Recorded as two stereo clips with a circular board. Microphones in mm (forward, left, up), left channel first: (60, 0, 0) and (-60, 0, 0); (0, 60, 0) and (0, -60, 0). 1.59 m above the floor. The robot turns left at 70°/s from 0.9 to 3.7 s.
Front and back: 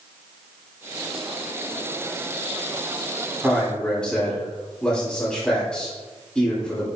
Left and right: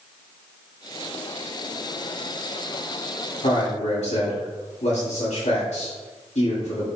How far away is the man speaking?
About 3 m.